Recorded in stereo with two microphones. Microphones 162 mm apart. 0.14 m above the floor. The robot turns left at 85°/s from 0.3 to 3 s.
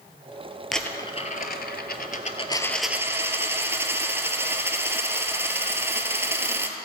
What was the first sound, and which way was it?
A dropped coin, straight behind.